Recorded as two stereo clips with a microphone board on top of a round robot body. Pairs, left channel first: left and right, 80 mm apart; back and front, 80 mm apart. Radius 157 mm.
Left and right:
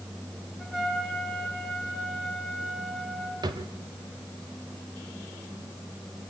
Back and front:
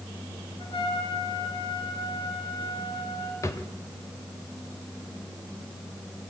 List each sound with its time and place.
0.6 s a trumpet: 175° right, 4 m
3.4 s a drawer: 125° right, 1.5 m